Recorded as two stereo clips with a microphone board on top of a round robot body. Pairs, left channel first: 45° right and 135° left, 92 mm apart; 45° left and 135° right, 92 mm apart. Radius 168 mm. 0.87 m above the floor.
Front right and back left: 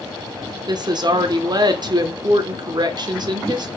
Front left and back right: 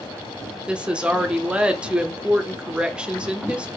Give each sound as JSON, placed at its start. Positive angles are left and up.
{"t": 0.7, "sound": "a woman speaking", "azimuth_deg": 150, "distance_m": 1.0}